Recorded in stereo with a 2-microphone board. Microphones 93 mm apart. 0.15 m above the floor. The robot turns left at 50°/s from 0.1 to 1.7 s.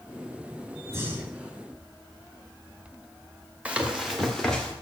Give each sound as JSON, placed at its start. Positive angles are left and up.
{"t": 0.9, "sound": "breathing", "azimuth_deg": -140, "distance_m": 1.5}
{"t": 3.6, "sound": "running footsteps", "side_deg": -15, "distance_m": 1.5}